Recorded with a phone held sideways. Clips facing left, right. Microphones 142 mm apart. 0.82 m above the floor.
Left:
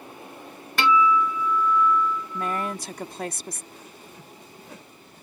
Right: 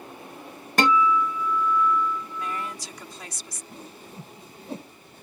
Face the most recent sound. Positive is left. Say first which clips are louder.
# right 3 dB
turn(degrees=-35)  # may be behind; listen again after turning